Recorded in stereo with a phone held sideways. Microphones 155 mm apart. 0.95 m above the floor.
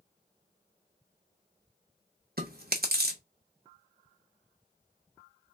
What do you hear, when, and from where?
2.4 s chewing: 70° right (ahead or behind), 1.1 m